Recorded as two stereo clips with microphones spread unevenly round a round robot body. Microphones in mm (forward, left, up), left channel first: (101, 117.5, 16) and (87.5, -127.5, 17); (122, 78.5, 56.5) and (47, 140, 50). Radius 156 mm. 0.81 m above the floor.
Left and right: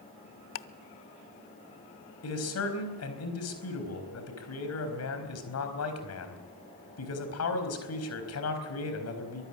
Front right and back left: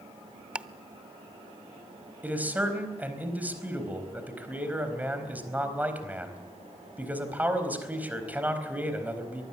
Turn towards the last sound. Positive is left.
turn(degrees=65)